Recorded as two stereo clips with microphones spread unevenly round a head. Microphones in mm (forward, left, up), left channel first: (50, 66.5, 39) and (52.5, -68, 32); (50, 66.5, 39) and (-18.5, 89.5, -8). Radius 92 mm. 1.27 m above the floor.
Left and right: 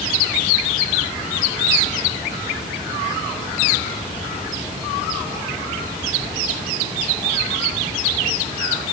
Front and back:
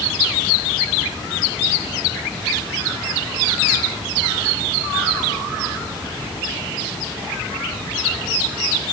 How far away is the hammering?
I don't hear hammering.